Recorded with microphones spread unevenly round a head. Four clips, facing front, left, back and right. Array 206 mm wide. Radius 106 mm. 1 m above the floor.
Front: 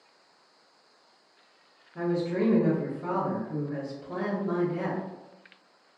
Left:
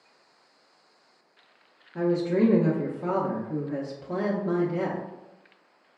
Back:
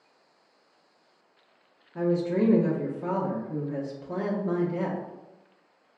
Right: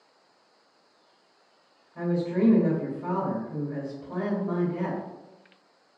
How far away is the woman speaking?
About 0.8 m.